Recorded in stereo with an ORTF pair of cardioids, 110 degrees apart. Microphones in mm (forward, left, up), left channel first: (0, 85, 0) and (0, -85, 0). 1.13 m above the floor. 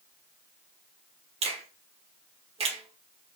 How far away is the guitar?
I don't hear a guitar.